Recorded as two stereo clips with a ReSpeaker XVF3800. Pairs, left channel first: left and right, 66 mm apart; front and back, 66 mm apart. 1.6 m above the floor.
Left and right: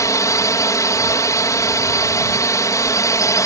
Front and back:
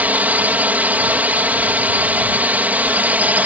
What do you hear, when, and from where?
0.0 s a drone: 115° left